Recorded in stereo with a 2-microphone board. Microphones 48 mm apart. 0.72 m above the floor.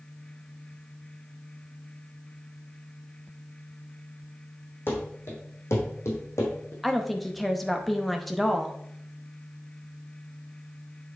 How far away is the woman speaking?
About 0.7 m.